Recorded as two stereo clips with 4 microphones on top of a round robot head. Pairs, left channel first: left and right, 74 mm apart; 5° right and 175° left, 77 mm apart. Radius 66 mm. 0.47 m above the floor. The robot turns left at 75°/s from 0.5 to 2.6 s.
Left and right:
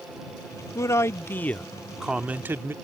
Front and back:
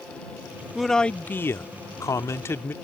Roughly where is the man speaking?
Left.